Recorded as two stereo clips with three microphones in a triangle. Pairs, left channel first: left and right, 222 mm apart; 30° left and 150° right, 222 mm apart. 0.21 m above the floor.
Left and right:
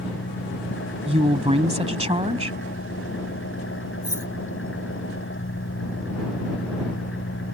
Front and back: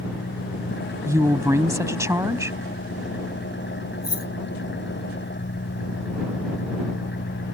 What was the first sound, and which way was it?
An engine running, 65° left.